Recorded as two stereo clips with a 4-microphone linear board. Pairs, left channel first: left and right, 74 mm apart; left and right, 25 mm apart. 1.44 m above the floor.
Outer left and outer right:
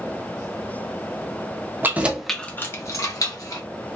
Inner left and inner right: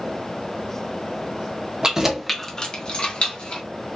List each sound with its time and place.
1.8 s keys jangling: 30° right (ahead or behind), 0.6 m; by 3.6 s 55° left (ahead or behind), 1.2 m